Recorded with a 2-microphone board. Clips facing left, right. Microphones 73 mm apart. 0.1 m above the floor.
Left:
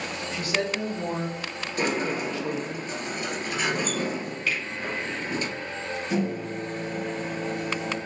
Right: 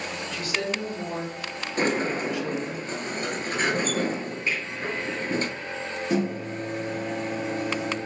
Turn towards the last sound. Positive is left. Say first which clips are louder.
# right 2 dB
turn(degrees=-50)  # may be behind; listen again after turning